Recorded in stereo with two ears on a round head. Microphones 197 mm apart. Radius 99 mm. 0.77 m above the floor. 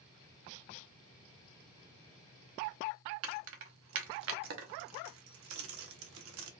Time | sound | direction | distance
3.2 | keys jangling | 65° right (ahead or behind) | 0.7 m